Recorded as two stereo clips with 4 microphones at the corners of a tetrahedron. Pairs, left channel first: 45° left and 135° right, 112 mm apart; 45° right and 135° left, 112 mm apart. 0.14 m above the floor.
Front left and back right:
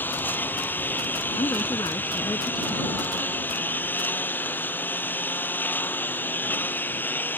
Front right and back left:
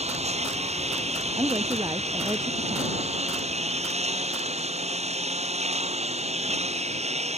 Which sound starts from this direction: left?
A woman speaking, at 1.4 s.